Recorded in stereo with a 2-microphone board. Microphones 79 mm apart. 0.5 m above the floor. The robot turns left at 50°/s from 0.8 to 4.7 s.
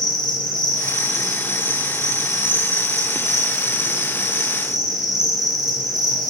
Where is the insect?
70° left, 2.5 m; by 6.3 s 125° right, 2.5 m.